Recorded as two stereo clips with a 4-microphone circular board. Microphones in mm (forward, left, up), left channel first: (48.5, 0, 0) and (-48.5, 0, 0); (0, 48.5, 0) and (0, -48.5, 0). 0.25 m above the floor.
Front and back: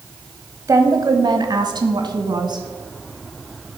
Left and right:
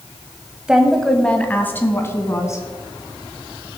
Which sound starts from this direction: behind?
A woman speaking, at 0.7 s.